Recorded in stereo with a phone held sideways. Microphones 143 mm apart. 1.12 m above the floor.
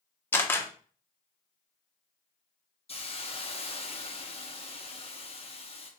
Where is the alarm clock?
No alarm clock in this recording.